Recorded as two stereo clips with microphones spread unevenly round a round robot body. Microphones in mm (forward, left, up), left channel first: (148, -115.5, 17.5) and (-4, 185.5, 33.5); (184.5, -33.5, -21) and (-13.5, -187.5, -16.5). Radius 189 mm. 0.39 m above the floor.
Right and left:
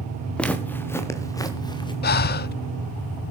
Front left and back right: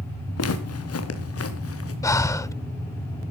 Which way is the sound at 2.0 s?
30° right.